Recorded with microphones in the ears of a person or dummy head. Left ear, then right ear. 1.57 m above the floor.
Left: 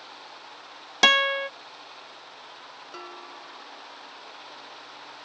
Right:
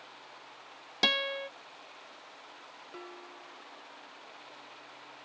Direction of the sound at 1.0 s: 30° left (ahead or behind).